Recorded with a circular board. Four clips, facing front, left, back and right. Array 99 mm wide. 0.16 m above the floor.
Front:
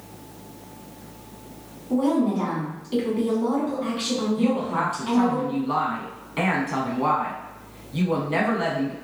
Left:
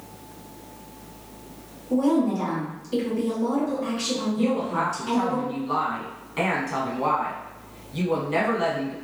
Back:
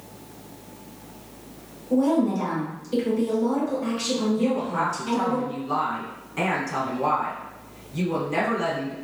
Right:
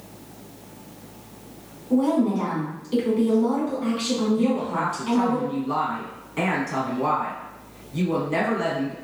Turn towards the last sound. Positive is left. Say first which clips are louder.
# right 1 dB, front 1 dB
turn(degrees=25)